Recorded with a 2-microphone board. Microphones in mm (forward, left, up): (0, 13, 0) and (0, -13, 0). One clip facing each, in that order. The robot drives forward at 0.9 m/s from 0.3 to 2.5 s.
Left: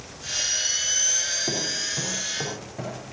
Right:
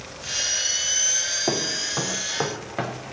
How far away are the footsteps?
About 4 m.